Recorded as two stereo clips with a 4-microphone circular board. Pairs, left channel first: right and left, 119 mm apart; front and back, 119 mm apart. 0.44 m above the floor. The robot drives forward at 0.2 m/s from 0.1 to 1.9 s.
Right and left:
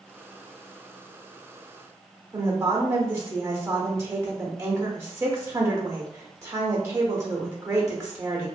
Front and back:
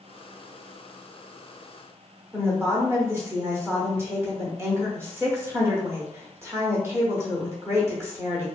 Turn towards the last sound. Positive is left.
turn(degrees=130)